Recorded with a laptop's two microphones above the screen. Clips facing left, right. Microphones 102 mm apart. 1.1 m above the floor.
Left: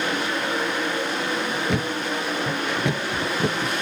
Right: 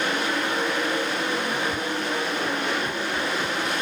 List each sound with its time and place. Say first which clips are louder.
1.7 s a thud: left 2 dB; 75° left (ahead or behind)